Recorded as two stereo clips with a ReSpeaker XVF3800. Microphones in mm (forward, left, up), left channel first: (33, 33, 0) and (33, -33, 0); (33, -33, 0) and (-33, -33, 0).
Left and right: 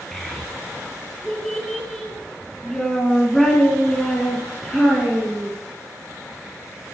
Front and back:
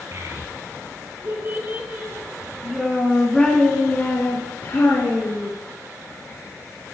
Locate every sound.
0.1 s a child speaking: 170° left, 1.9 m; by 5.5 s 10° left, 1.8 m